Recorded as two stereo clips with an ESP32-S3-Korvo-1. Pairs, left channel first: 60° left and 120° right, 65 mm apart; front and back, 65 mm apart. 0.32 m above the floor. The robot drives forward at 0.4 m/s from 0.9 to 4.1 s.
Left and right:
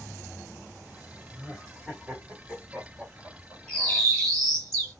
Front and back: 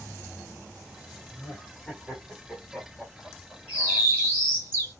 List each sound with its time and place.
1.3 s laughter: 40° right, 1.6 m; by 4.1 s 140° right, 1.6 m
3.7 s a bird: 130° left, 1.8 m; by 4.9 s 135° left, 1.9 m